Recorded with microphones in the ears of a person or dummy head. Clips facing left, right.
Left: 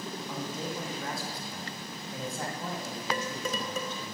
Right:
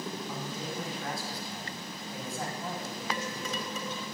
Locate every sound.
0.3 s a man speaking: 85° left, 9.5 m; by 4.1 s 75° left (ahead or behind), 9 m
3.1 s dishes clattering: 40° left (ahead or behind), 3.5 m